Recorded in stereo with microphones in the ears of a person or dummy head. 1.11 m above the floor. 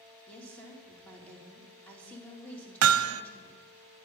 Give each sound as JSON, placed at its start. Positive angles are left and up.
{"t": 0.3, "sound": "a woman speaking", "side_deg": 10, "distance_m": 3.0}
{"t": 2.8, "sound": "hammering", "side_deg": -80, "distance_m": 0.7}